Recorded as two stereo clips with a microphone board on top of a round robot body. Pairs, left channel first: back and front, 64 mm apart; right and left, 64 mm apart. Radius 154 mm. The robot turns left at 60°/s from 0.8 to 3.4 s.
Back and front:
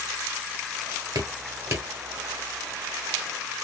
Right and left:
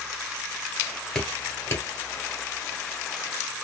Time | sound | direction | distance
1.1 | dripping | 5° right | 1.3 m